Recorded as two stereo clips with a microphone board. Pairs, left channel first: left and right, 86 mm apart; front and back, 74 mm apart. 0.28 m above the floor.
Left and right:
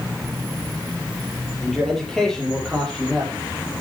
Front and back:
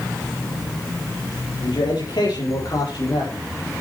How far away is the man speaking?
About 7.5 m.